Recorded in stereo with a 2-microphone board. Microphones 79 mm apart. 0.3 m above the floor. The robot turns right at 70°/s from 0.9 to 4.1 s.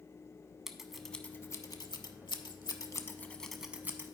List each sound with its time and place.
0.7 s scissors: 5° right (ahead or behind), 0.6 m; by 4.1 s 40° right (ahead or behind), 0.6 m